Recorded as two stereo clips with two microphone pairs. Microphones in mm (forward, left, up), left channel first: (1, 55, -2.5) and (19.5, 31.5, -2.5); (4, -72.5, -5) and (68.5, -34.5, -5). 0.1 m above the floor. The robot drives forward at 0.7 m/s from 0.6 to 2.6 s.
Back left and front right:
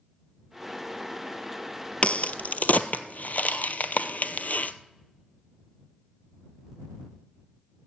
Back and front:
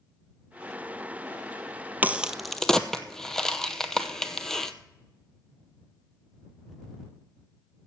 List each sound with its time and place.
2.0 s a crack: 90° left, 0.6 m; by 4.7 s 130° left, 0.7 m